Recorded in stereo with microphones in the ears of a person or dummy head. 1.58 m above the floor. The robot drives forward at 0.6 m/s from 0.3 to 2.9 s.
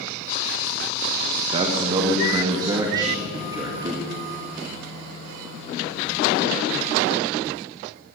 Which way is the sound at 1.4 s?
30° right (ahead or behind).